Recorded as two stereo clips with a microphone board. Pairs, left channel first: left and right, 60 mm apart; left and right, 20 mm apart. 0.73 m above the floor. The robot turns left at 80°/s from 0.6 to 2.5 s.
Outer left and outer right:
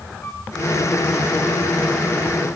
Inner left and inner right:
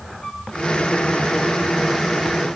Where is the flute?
40° left (ahead or behind), 5 m.